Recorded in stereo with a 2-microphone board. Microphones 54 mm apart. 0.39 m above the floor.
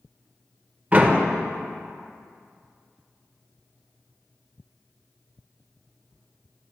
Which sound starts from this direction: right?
A door slam, at 0.9 s.